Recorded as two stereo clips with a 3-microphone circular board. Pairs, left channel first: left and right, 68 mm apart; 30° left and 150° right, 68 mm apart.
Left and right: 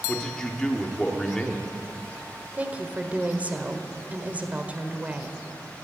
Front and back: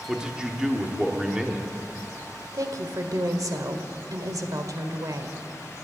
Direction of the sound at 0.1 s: 155° left.